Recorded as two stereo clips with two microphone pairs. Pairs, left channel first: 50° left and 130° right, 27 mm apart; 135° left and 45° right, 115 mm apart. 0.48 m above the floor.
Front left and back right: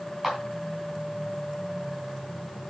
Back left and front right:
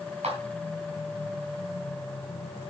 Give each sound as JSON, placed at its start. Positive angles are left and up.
{"t": 0.2, "sound": "a clap", "azimuth_deg": -55, "distance_m": 3.5}